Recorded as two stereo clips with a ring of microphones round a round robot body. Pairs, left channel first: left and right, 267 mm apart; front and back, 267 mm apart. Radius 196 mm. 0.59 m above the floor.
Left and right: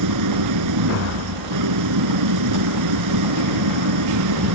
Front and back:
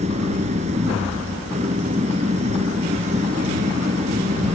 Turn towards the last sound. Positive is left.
turn(degrees=-105)